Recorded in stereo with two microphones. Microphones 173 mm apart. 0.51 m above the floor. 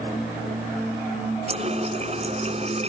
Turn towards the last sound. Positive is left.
turn(degrees=-40)  # may be behind; listen again after turning